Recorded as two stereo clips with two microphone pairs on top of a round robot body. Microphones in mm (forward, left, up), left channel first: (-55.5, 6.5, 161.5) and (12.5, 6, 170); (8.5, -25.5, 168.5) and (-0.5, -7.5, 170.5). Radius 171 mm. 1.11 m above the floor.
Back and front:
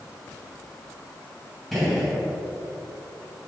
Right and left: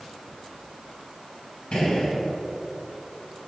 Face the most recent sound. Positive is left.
turn(degrees=-95)